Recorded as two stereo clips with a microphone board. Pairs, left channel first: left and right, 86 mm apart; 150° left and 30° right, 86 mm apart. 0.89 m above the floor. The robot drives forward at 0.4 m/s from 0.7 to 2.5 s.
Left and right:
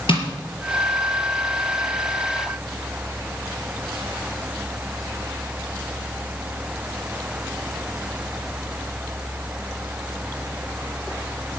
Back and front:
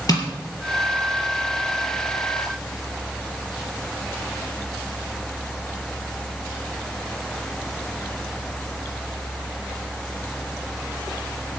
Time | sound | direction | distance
0.1 | tapping | 105° left | 4.5 m